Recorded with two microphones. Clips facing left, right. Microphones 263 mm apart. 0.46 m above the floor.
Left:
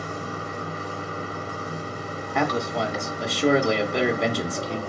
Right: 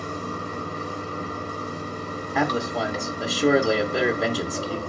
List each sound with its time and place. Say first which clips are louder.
0.0 s running water: right 1 dB; 50° right (ahead or behind), 1.5 m
2.4 s a man speaking: even; 5° right (ahead or behind), 0.9 m